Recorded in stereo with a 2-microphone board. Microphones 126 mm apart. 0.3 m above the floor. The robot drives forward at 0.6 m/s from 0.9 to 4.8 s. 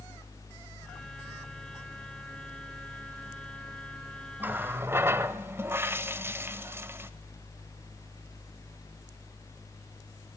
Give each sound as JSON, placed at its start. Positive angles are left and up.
{"t": 4.4, "sound": "a running tap", "side_deg": -15, "distance_m": 0.8}